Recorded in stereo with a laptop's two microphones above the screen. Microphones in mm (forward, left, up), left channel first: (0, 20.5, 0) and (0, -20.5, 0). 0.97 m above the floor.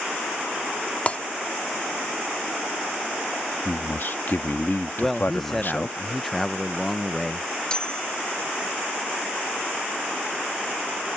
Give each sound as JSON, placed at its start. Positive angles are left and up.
{"t": 1.1, "sound": "breaking glass", "side_deg": 35}
{"t": 3.6, "sound": "a man speaking", "side_deg": 50}
{"t": 5.0, "sound": "a man speaking", "side_deg": 5}
{"t": 7.7, "sound": "a bell", "side_deg": 20}